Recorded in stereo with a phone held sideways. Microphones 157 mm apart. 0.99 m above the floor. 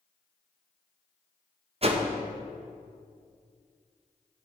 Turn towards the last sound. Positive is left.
turn(degrees=-45)  # may be behind; listen again after turning